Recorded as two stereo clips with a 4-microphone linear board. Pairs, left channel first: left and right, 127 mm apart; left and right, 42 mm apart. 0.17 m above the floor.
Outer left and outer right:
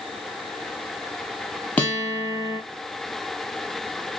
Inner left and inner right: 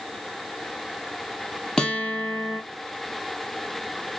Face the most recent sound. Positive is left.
turn(degrees=15)  # may be behind; listen again after turning